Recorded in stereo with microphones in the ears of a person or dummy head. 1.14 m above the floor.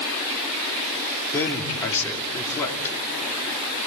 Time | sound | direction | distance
1.3 | a man speaking | 15° left (ahead or behind) | 3 m